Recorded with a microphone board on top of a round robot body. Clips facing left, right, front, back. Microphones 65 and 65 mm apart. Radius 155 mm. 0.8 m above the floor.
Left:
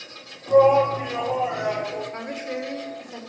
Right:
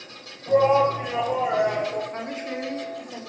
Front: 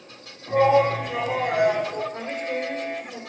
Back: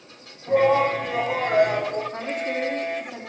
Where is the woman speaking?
155° right, 3.5 m.